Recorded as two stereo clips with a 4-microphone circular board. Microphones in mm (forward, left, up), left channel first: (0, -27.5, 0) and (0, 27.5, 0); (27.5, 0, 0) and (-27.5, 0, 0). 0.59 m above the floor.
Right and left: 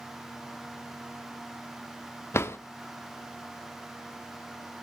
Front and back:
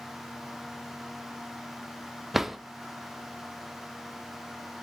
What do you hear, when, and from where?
2.3 s a drawer: 95° right, 0.5 m